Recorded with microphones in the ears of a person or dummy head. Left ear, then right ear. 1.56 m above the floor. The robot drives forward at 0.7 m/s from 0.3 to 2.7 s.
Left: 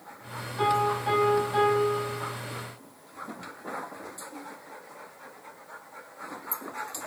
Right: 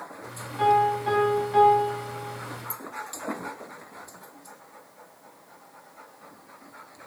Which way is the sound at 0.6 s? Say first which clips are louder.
Right 4 dB; centre (ahead or behind).